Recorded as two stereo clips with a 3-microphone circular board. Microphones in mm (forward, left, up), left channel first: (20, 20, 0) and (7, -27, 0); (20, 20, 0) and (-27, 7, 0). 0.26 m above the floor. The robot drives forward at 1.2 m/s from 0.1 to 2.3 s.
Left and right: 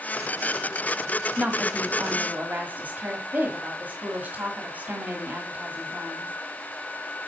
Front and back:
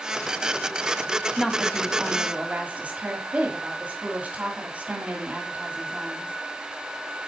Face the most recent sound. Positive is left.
turn(degrees=-125)